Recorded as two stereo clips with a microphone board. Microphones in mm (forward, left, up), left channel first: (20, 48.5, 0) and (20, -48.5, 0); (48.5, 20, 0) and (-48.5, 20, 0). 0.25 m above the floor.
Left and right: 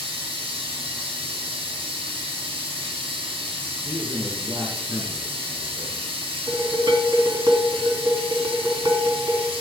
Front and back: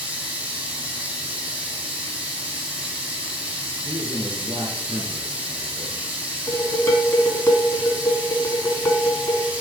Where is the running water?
100° right, 3 m.